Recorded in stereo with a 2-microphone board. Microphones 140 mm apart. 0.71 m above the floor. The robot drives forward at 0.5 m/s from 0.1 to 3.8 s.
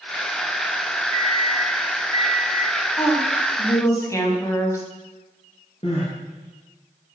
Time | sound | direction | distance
1.1 | a microwave | 35° left (ahead or behind) | 1.2 m
3.0 | a woman speaking | 20° left (ahead or behind) | 4.5 m
5.8 | crying | 45° left (ahead or behind) | 7 m